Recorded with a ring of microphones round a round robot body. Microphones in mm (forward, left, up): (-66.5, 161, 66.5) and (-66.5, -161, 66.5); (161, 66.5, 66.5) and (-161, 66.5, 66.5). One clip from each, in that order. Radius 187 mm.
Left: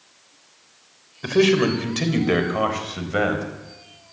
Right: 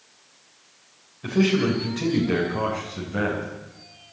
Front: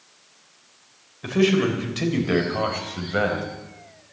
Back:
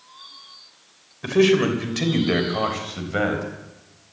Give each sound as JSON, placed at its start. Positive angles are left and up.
{"t": 1.2, "sound": "a man speaking", "azimuth_deg": 115, "distance_m": 3.0}